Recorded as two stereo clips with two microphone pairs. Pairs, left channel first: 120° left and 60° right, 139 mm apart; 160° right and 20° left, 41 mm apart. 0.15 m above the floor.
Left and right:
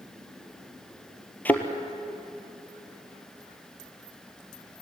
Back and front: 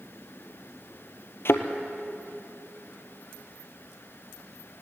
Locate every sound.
1.4 s a thud: 160° right, 1.6 m